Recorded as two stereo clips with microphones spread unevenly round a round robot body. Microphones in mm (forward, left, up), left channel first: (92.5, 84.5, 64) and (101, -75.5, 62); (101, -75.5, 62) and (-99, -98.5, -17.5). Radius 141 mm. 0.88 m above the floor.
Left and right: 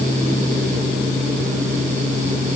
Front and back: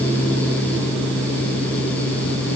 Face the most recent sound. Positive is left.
No sound to turn to.